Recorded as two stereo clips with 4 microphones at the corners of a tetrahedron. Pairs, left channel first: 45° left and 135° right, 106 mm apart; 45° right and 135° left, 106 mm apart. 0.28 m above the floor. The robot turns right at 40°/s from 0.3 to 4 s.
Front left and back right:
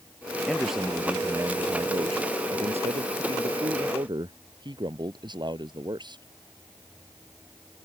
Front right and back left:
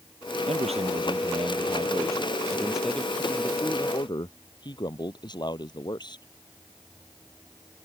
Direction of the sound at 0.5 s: 130° left.